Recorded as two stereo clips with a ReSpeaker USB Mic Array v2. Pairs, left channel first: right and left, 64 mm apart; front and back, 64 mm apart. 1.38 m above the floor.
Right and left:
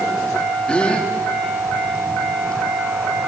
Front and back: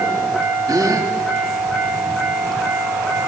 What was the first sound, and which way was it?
A gasp, 165° right.